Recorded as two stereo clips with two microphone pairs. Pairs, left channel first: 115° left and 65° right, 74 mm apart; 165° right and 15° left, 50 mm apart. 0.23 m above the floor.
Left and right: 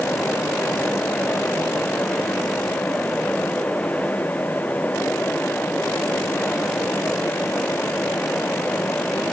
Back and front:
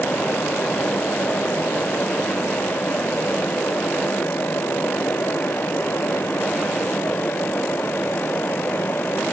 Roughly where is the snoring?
I don't hear snoring.